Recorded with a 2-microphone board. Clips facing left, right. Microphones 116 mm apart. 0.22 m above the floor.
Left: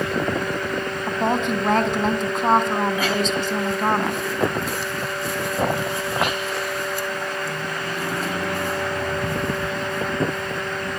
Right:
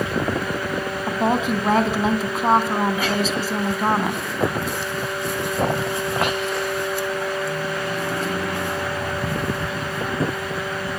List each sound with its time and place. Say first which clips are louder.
1.1 s a woman speaking: right 1 dB; 5° right (ahead or behind), 1.8 m